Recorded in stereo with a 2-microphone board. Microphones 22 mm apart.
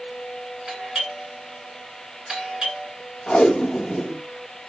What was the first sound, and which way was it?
A doorbell, 50° right (ahead or behind).